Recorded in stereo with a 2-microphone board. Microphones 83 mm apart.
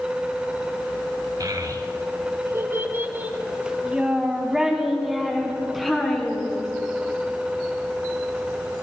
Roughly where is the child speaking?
Right.